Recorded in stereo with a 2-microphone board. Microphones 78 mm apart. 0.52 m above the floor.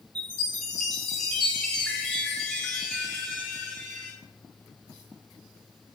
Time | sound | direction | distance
0.1 | a chime | 5° right (ahead or behind) | 3.5 m